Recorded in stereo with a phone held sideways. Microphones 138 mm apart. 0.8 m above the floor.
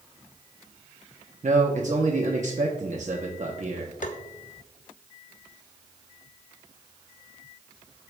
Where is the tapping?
75° left (ahead or behind), 0.8 m.